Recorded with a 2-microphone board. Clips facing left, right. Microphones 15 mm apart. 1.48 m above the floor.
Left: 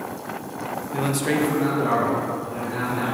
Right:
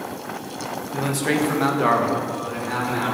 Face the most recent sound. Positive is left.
turn(degrees=-85)